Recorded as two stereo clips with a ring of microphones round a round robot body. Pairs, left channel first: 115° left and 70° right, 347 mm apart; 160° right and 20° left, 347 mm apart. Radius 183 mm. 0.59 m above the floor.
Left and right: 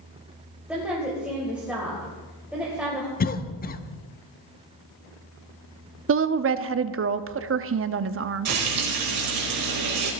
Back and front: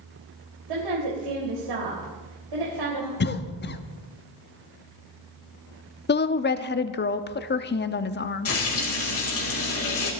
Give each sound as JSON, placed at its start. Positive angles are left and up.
{"t": 0.7, "sound": "a woman speaking", "azimuth_deg": 20, "distance_m": 3.5}
{"t": 3.2, "sound": "a cough", "azimuth_deg": 160, "distance_m": 0.9}
{"t": 6.1, "sound": "a woman speaking", "azimuth_deg": -105, "distance_m": 0.8}
{"t": 8.4, "sound": "frying", "azimuth_deg": -110, "distance_m": 4.0}